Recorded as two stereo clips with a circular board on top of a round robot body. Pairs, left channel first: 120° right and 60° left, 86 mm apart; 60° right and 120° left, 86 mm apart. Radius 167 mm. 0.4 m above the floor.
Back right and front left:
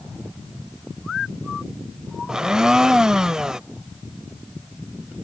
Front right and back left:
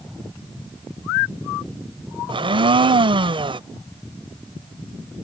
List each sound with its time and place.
2.3 s a blender: 145° left